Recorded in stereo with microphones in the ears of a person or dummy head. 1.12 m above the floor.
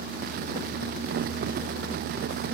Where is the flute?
I don't hear a flute.